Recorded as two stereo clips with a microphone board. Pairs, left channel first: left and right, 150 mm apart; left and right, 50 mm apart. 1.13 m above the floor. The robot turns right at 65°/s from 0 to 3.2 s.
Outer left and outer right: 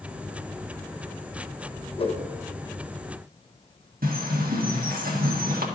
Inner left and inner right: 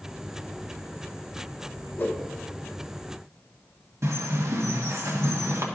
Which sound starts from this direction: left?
A whoosh, at 2.0 s.